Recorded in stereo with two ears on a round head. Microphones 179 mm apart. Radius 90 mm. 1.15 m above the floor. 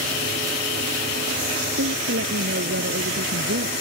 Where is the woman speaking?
60° right (ahead or behind).